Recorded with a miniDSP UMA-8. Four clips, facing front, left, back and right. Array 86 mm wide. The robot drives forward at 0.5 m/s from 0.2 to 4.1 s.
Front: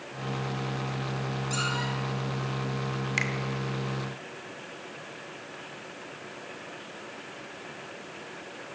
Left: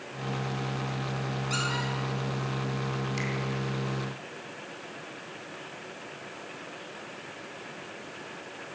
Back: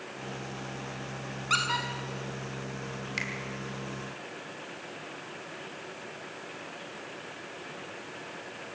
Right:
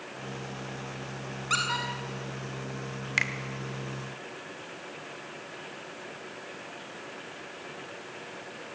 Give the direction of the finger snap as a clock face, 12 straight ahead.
2 o'clock.